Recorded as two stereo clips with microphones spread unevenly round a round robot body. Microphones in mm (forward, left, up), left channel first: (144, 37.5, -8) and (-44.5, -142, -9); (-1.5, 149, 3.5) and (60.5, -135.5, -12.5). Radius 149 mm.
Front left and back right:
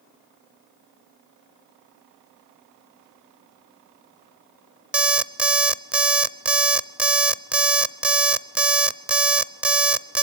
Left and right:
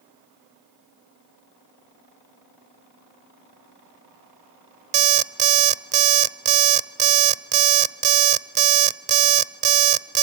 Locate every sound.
4.9 s an alarm clock: 55° right, 0.5 m